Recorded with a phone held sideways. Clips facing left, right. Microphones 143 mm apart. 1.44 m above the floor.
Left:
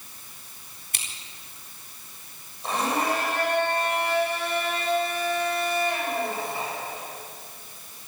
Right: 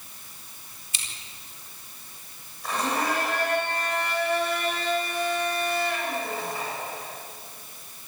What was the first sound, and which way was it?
Scissors, 55° left (ahead or behind).